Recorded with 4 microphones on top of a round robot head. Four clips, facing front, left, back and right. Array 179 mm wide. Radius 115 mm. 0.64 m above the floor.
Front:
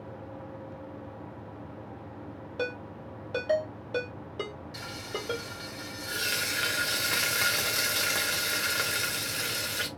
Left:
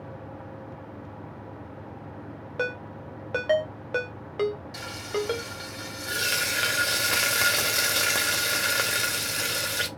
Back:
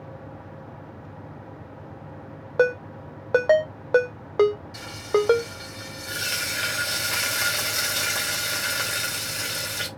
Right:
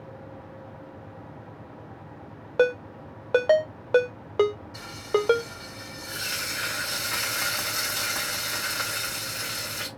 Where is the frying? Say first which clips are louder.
Right 4 dB, back 14 dB; 95° left, 1.4 m.